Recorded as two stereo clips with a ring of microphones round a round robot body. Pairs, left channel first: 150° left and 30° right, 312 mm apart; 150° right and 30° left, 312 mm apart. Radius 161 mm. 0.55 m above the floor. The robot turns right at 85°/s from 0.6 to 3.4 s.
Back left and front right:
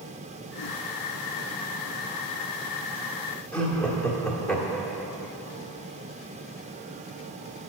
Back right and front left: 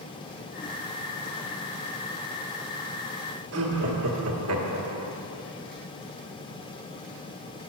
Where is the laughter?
65° left, 1.5 m.